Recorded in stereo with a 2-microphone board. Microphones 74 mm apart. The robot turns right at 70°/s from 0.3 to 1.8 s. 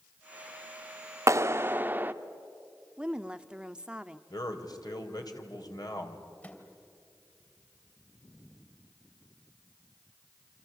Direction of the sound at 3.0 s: 10° right (ahead or behind).